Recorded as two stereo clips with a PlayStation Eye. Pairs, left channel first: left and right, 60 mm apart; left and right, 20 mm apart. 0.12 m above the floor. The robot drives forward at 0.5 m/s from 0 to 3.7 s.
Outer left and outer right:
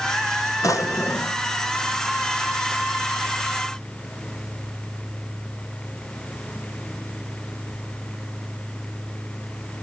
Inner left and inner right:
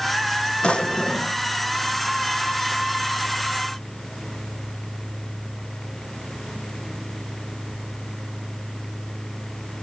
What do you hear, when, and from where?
0.6 s a drawer: 70° left (ahead or behind), 1.1 m; by 1.4 s 55° left (ahead or behind), 1.3 m